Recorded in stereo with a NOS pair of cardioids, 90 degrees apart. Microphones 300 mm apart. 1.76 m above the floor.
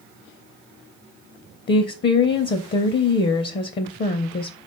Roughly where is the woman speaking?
Ahead left.